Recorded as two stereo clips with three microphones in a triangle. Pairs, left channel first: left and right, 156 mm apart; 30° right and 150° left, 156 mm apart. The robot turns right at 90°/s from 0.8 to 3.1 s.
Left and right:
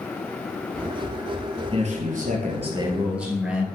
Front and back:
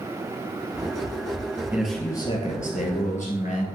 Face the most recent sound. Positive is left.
turn(degrees=-10)